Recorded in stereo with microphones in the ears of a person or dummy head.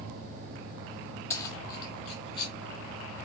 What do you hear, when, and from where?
1.3 s keys jangling: 20° left (ahead or behind), 0.7 m; by 2.5 s 25° left (ahead or behind), 0.7 m